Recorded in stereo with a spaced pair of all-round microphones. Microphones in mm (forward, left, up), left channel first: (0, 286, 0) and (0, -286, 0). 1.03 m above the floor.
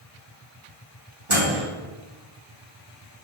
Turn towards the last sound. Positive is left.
turn(degrees=-55)  # may be behind; listen again after turning